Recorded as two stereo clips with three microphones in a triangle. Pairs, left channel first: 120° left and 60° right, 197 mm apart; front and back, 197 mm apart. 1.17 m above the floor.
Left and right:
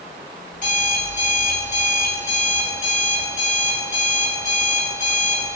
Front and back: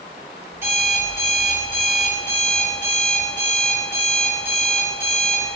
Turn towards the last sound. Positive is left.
turn(degrees=-105)